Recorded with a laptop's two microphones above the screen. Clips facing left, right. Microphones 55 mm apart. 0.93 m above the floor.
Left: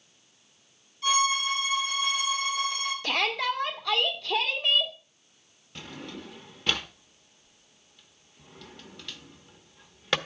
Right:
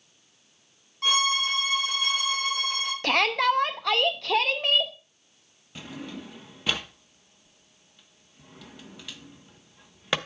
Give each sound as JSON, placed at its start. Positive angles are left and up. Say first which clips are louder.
{"t": 1.0, "sound": "a violin", "louder": "even", "side_deg": -65, "distance_m": 2.0}
{"t": 3.0, "sound": "a shout", "louder": "right 6 dB", "side_deg": -65, "distance_m": 0.8}
{"t": 5.8, "sound": "a drawer", "louder": "right 2 dB", "side_deg": -5, "distance_m": 0.7}